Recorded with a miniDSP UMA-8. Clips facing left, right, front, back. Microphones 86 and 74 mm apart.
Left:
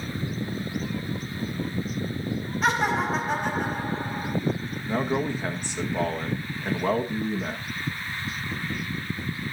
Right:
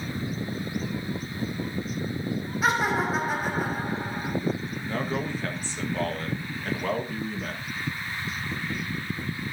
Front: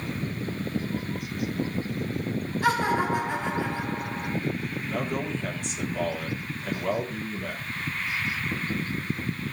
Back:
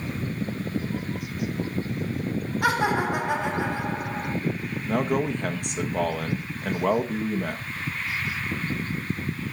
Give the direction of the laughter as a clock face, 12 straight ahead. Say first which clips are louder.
Even, back 1 dB; 6 o'clock.